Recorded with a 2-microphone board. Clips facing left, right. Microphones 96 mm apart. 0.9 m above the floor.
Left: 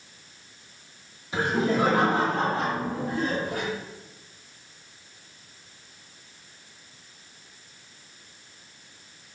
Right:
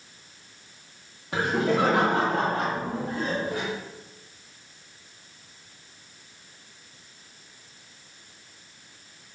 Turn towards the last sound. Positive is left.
turn(degrees=-30)  # may be behind; listen again after turning